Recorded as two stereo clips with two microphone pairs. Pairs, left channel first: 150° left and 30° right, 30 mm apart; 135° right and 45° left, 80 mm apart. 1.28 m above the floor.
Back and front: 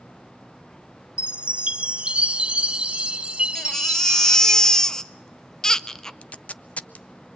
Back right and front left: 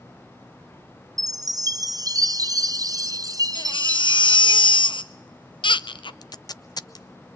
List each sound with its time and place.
1.2 s a chime: 15° left, 0.7 m
3.5 s a baby crying: 140° right, 0.6 m
6.2 s tape being pulled: 165° right, 0.5 m